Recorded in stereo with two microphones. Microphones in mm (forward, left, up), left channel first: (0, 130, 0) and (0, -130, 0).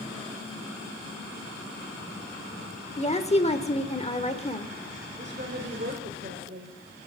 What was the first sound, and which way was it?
A woman speaking, 25° left (ahead or behind).